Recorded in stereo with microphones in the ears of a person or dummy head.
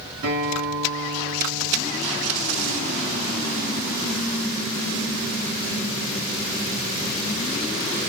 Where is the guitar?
70° right (ahead or behind), 3.5 m.